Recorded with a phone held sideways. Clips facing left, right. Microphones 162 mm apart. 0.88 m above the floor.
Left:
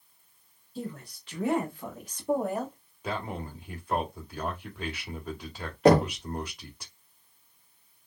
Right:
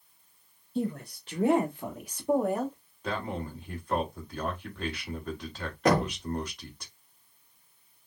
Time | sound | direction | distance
0.8 | a woman speaking | 45° right (ahead or behind) | 1.2 m
3.0 | a man speaking | 10° left (ahead or behind) | 1.8 m
5.8 | knocking | 30° left (ahead or behind) | 1.0 m